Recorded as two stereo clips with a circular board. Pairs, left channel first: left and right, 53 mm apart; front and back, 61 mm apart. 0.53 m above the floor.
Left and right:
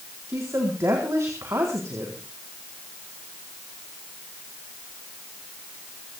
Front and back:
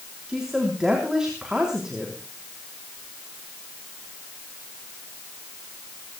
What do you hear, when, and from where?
0.3 s a woman speaking: 105° right, 4 m